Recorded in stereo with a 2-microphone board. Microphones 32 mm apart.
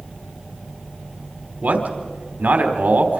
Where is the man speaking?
65° right (ahead or behind), 3.5 m.